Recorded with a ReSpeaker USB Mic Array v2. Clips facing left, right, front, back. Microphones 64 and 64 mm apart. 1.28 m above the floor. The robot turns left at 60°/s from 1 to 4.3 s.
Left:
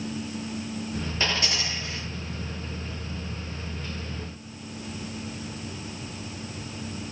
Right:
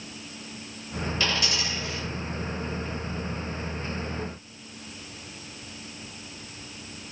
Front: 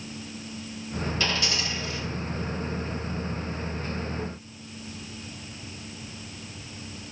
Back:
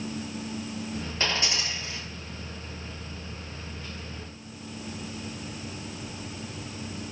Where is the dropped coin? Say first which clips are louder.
Even, back 1 dB; 145° left, 1.4 m; by 2.0 s 95° left, 1.4 m.